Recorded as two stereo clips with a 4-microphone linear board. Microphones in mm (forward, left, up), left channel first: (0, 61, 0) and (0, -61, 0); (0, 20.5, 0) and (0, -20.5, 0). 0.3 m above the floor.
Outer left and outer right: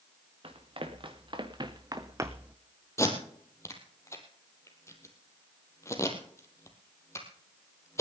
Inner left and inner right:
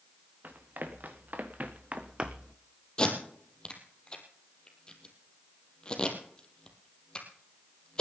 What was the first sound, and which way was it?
Running footsteps, 50° right (ahead or behind).